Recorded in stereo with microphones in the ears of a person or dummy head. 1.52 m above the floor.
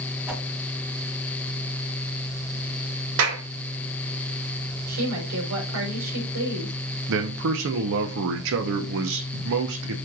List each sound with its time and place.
0.3 s a whoosh: 5° right (ahead or behind), 1.6 m
3.2 s a clap: 80° right, 2 m
4.9 s a woman speaking: 85° right, 4.5 m
7.1 s a man speaking: 70° right (ahead or behind), 1.0 m